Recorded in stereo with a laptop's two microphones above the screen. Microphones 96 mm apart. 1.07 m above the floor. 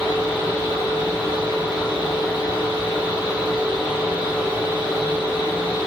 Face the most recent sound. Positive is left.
turn(degrees=-20)  # may be behind; listen again after turning